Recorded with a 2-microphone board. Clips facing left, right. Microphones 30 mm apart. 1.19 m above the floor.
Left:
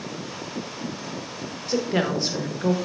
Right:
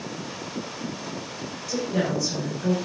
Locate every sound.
1.7 s a woman speaking: 50° left (ahead or behind), 1.3 m